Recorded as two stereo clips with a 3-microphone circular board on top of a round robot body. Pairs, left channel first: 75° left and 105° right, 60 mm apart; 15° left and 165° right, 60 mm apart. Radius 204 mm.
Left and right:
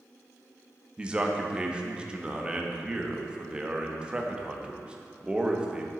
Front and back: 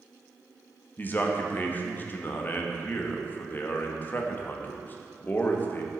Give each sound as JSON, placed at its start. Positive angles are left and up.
{"t": 1.0, "sound": "a man speaking", "azimuth_deg": -35, "distance_m": 1.8}